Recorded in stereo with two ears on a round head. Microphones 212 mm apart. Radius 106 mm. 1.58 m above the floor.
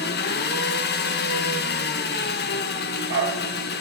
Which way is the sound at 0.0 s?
45° left (ahead or behind).